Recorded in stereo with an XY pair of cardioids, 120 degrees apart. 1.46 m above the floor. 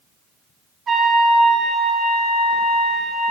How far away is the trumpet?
About 3 m.